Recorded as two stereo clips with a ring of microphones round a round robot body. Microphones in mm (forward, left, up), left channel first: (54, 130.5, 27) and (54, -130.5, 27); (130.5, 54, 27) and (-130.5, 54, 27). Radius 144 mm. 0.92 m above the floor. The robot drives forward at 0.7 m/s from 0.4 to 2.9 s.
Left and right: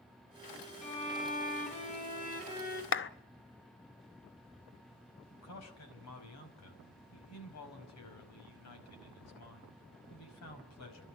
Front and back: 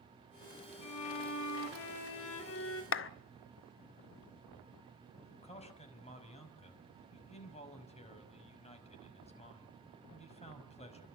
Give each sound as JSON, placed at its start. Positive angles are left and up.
{"t": 0.8, "sound": "a violin", "azimuth_deg": 25, "distance_m": 4.5}
{"t": 2.9, "sound": "a clap", "azimuth_deg": 45, "distance_m": 0.8}
{"t": 5.3, "sound": "a man speaking", "azimuth_deg": 65, "distance_m": 5.5}